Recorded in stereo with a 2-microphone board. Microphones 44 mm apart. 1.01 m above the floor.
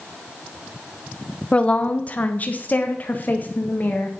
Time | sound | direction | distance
1.5 | a woman speaking | 25° left (ahead or behind) | 0.8 m